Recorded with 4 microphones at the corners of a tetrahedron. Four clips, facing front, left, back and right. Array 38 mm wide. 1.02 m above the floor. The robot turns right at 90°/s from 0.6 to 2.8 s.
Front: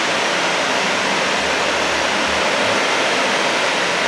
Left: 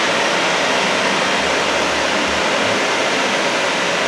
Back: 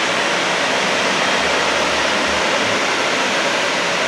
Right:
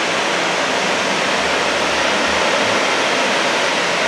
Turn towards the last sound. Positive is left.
turn(degrees=-50)